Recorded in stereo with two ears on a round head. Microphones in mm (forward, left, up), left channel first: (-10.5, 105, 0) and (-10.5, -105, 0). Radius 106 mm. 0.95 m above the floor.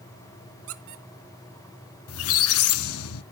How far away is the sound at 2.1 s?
About 0.7 m.